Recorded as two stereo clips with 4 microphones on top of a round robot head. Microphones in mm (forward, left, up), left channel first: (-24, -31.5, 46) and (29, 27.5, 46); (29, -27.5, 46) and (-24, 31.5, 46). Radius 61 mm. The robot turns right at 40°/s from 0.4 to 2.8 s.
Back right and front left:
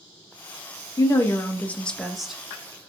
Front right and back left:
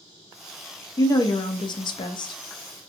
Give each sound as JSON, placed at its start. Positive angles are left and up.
{"t": 1.0, "sound": "a woman speaking", "azimuth_deg": -90, "distance_m": 0.5}